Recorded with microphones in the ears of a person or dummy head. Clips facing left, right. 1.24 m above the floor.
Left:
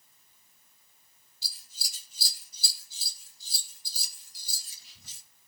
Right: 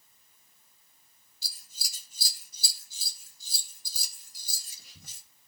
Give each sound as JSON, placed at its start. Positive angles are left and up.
{"t": 1.4, "sound": "scissors", "side_deg": -50, "distance_m": 2.5}